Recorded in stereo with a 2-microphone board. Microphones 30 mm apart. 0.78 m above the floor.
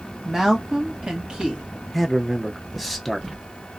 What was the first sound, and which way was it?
A woman speaking, 15° right (ahead or behind).